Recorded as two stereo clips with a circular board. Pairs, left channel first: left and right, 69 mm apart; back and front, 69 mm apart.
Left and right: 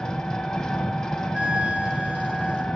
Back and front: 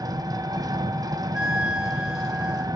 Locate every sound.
0.0 s an engine running: 5° left, 0.7 m
1.3 s a flute: 55° right, 0.6 m